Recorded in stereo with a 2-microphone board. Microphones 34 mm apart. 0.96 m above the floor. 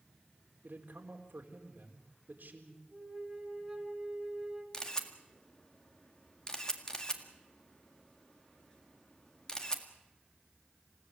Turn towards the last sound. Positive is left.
turn(degrees=25)  # may be behind; listen again after turning